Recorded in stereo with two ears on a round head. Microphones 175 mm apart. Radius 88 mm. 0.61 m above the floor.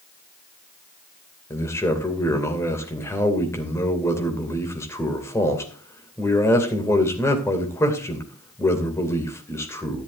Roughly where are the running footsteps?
No running footsteps in this recording.